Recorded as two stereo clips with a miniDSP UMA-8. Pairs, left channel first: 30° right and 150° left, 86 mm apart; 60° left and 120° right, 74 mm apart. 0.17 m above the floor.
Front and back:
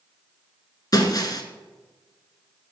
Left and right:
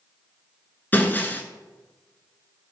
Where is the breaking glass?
Straight ahead, 1.3 m.